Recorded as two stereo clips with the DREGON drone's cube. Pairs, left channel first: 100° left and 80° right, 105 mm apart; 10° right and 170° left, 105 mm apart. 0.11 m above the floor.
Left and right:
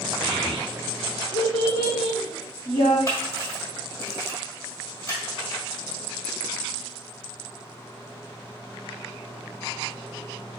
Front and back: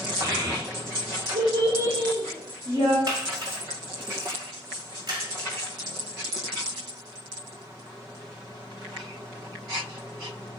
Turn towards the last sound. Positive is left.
turn(degrees=145)